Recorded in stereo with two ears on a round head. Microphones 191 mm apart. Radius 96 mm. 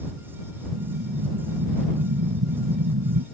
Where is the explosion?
85° right.